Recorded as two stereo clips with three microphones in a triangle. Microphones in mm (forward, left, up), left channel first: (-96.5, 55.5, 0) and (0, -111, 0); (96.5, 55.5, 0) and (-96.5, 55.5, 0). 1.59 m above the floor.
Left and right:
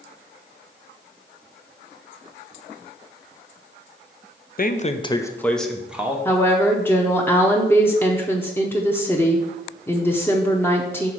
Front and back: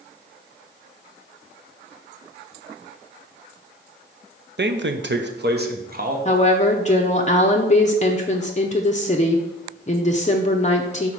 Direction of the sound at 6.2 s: 45° left.